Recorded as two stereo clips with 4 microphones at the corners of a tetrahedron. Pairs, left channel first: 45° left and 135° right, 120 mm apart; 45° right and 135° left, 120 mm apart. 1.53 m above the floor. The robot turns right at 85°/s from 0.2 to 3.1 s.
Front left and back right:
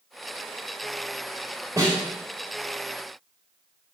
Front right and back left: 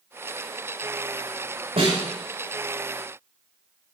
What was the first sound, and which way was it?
A snare drum, 165° left.